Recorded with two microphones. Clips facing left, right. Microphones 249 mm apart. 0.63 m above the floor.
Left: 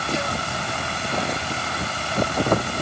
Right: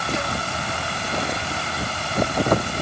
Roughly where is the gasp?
No gasp in this recording.